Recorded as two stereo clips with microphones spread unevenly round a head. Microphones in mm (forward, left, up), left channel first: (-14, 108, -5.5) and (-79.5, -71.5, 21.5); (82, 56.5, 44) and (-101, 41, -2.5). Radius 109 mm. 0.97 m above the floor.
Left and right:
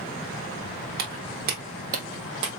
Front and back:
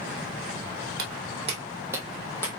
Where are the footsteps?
120° right, 1.7 m; by 2.5 s 55° right, 1.5 m.